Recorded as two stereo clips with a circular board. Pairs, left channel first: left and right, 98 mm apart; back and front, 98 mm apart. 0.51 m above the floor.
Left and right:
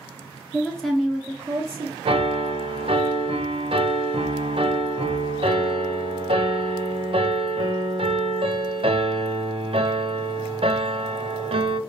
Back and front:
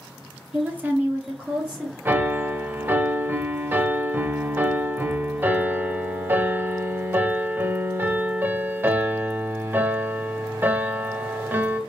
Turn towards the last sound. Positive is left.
turn(degrees=-70)